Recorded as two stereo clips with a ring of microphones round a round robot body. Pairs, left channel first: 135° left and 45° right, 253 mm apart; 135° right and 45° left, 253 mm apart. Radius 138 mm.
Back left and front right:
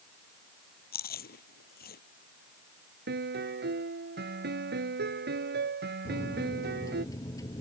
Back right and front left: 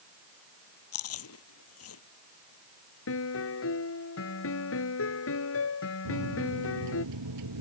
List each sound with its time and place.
0.9 s chewing: 170° right
3.1 s a piano: 95° right
6.0 s a microwave: 55° left